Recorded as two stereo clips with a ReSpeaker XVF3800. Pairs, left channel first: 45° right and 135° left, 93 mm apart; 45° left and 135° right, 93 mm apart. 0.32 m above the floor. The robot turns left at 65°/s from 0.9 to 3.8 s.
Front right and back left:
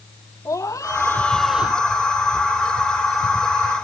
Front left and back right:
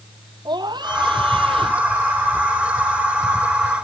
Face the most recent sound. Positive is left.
turn(degrees=75)